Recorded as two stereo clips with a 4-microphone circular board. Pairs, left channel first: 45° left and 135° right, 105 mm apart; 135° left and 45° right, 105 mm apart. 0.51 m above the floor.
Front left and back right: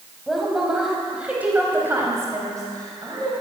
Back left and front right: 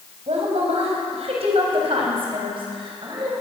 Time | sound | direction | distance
0.3 | a woman speaking | 45° right | 3.5 m